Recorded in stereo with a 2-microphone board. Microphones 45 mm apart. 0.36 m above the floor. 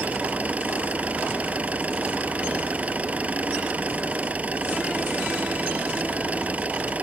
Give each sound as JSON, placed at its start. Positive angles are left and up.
{"t": 0.0, "sound": "an engine running", "side_deg": -30}